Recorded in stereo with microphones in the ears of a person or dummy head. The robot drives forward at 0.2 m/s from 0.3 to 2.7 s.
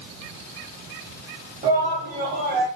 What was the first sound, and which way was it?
A shout, 35° right (ahead or behind).